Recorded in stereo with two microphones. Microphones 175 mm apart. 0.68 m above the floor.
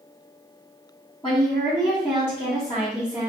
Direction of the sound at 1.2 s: 30° left (ahead or behind).